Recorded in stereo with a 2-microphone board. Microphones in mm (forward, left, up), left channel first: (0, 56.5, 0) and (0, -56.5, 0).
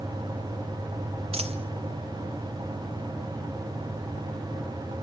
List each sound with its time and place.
1.3 s a dropped coin: 60° right (ahead or behind), 1.3 m